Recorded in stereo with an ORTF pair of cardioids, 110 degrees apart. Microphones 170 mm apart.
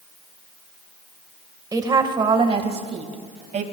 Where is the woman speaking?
20° right, 1.7 m; by 3.6 s 45° right, 2.5 m.